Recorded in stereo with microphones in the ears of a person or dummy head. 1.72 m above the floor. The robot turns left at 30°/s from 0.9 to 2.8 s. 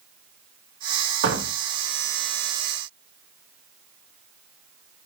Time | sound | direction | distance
1.2 | a door slam | 80° right | 3 m